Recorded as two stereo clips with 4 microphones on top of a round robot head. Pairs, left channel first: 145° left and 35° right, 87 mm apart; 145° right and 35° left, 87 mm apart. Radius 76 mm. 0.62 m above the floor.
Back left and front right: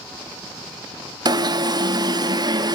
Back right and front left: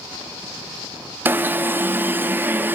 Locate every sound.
1.2 s an alarm: 25° right, 0.6 m